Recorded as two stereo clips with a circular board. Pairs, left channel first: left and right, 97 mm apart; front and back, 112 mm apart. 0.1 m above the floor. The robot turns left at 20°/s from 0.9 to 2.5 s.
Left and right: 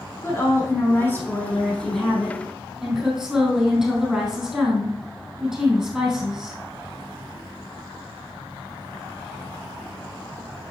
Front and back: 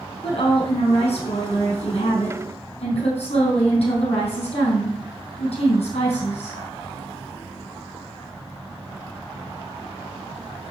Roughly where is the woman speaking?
Ahead left.